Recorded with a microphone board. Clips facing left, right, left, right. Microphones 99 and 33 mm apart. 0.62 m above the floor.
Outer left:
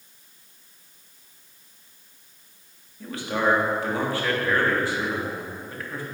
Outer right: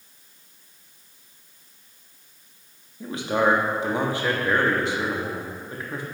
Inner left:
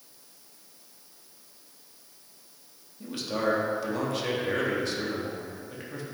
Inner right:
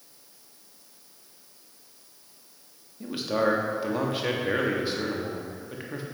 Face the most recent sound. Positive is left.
turn(degrees=-20)  # may be behind; listen again after turning